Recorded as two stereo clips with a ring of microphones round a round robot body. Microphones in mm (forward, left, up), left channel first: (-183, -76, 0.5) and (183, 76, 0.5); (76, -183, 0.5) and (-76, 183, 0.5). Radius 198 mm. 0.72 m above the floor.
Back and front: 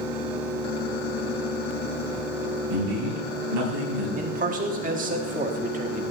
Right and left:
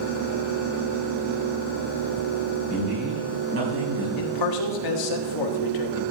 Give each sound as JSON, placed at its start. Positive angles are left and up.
{"t": 2.7, "sound": "a man speaking", "azimuth_deg": 55, "distance_m": 5.5}
{"t": 4.2, "sound": "a man speaking", "azimuth_deg": -45, "distance_m": 1.4}